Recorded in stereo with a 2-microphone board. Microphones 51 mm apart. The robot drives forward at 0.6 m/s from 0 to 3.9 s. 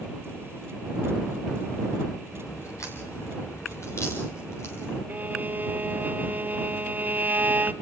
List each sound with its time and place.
2.3 s a crack: 75° left (ahead or behind), 6 m; by 5.0 s 65° left (ahead or behind), 6 m
5.1 s a violin: 40° right (ahead or behind), 0.9 m